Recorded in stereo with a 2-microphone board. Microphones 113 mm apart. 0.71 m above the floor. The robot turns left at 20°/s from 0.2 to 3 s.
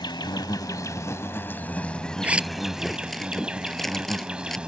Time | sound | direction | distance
0.0 | an insect | 45° left | ?
2.2 | a zipper | 15° right (ahead or behind) | ?